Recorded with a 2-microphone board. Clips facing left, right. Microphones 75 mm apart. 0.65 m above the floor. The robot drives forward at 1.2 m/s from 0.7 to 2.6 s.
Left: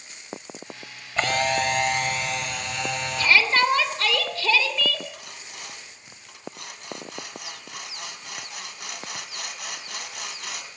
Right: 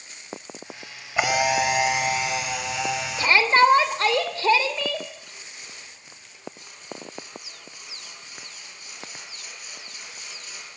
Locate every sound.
1.2 s a camera shutter: 10° right (ahead or behind), 1.2 m; by 3.4 s 5° right (ahead or behind), 3 m
3.2 s a shout: 30° right (ahead or behind), 3 m
5.1 s sawing: 80° left, 2.5 m